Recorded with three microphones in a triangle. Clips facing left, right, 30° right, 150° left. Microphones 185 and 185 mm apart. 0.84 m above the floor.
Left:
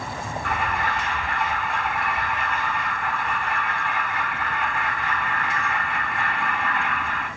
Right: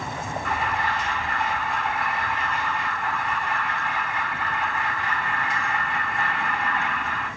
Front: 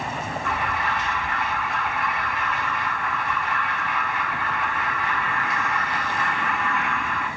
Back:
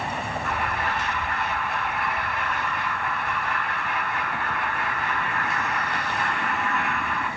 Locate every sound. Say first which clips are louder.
0.4 s an alarm: left 1 dB, front 2 dB; 105° left, 3 m